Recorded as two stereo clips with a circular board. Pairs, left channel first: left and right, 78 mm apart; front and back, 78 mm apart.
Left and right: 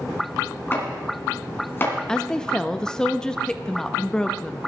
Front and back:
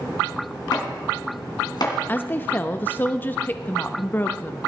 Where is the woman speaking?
25° left, 0.8 m.